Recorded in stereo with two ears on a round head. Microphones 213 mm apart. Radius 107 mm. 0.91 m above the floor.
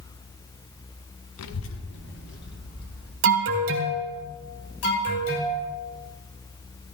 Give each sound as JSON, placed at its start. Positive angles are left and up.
{"t": 1.4, "sound": "a child speaking", "side_deg": 70, "distance_m": 0.6}
{"t": 3.2, "sound": "an alarm", "side_deg": -50, "distance_m": 2.0}
{"t": 4.8, "sound": "an alarm", "side_deg": 70, "distance_m": 6.5}